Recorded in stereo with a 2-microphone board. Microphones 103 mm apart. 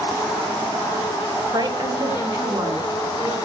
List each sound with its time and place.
1.5 s a woman speaking: 40° right (ahead or behind), 1.4 m; by 3.4 s 20° right (ahead or behind), 3 m